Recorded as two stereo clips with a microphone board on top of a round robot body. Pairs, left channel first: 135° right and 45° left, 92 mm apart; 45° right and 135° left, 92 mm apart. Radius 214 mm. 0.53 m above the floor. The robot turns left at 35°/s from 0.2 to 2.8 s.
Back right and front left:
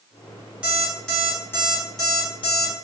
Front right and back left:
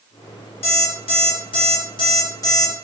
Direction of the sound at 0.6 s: 35° right.